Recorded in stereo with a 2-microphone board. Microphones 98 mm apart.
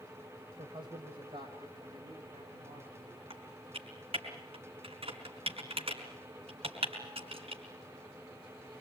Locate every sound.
0.6 s a man speaking: 55° right (ahead or behind), 2.5 m; by 3.2 s 80° right, 6 m
3.3 s typing on a keyboard: 75° right (ahead or behind), 4 m